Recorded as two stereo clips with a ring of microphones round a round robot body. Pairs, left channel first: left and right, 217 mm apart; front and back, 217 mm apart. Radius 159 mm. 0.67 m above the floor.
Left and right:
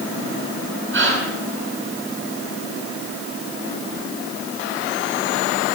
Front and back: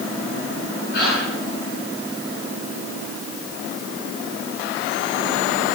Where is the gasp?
60° right, 8.5 m.